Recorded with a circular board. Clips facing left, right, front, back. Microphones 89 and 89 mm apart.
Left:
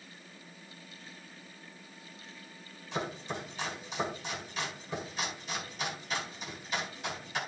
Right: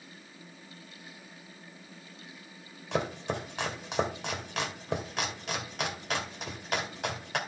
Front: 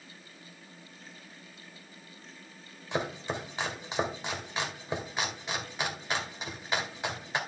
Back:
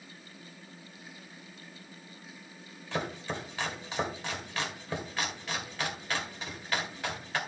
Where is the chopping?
70° right, 1.9 m.